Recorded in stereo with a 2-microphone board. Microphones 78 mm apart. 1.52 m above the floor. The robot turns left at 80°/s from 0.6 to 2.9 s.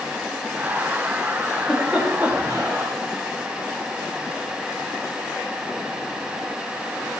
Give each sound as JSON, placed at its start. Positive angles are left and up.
{"t": 1.5, "sound": "a giggle", "side_deg": 25, "distance_m": 5.5}